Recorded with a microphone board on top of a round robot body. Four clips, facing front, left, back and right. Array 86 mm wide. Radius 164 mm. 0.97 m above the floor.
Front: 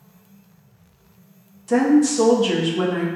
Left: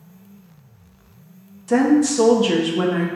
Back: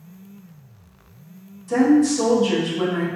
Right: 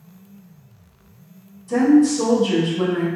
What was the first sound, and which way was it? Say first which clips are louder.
A woman speaking: right 1 dB, even; 65° left.